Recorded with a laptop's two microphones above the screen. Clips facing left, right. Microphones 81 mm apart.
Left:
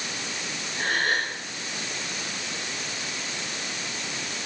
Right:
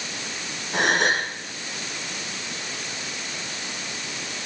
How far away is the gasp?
About 6.5 m.